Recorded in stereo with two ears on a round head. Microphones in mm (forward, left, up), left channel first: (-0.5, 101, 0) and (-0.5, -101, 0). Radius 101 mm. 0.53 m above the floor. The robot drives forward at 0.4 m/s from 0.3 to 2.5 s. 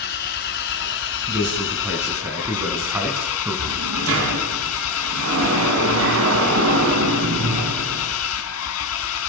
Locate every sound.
0.0 s an engine running: 50° left (ahead or behind), 2 m; by 9.3 s 70° left (ahead or behind), 1.7 m
1.3 s a man speaking: 10° right (ahead or behind), 4.5 m
3.7 s a sliding door: 65° right (ahead or behind), 4.5 m